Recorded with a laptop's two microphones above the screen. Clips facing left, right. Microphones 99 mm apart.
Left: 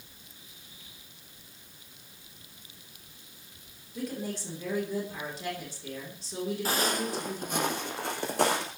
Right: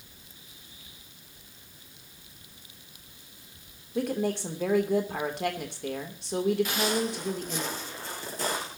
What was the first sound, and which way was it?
A woman speaking, 65° right (ahead or behind).